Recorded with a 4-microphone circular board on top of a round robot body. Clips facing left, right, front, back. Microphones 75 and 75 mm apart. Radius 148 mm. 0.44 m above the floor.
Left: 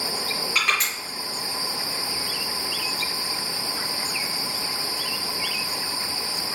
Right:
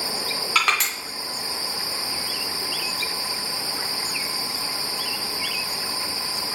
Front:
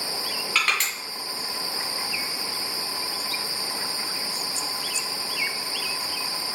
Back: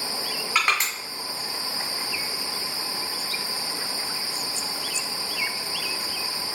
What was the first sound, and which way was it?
Crushing, 105° right.